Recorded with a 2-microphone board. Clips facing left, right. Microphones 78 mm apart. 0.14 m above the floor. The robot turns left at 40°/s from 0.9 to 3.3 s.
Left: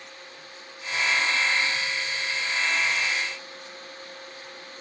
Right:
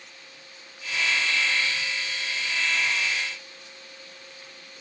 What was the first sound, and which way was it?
Only background noise.